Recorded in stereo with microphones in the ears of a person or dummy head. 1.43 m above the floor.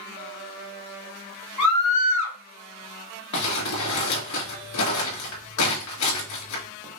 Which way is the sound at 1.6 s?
70° left (ahead or behind).